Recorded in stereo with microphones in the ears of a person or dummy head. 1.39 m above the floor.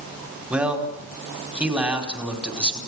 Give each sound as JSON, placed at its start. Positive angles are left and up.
{"t": 0.5, "sound": "a man speaking", "side_deg": -10, "distance_m": 4.5}